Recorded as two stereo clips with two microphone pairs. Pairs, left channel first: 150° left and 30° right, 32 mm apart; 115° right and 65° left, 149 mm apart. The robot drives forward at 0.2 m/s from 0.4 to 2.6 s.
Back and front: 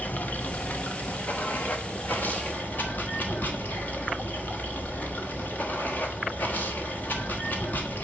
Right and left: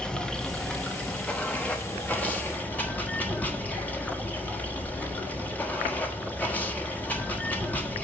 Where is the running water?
165° left, 0.8 m; by 8.0 s 170° left, 1.2 m.